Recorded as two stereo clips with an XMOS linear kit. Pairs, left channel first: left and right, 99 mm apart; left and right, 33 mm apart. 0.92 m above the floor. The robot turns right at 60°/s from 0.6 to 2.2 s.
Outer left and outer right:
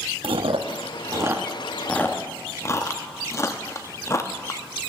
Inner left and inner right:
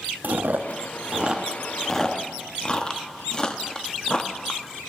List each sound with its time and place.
0.2 s chewing: 65° right (ahead or behind), 0.6 m; by 4.6 s 30° left (ahead or behind), 0.6 m